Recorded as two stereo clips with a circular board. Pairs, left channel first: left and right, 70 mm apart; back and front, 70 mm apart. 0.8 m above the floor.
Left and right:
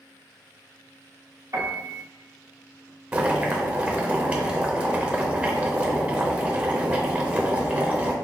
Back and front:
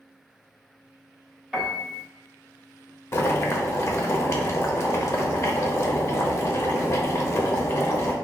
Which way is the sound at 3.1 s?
150° right.